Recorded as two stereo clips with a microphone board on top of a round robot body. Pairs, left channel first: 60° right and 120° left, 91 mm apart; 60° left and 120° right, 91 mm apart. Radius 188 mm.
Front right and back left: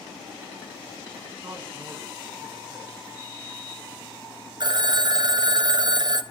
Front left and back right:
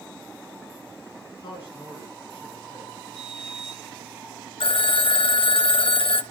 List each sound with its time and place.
1.4 s a man speaking: 80° left, 9.5 m
3.1 s a sliding door: 40° left, 8 m
4.6 s a phone ringing: 80° left, 1.0 m